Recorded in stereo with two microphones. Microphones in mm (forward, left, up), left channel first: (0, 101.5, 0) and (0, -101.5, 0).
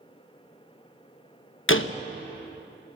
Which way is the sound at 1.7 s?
80° left.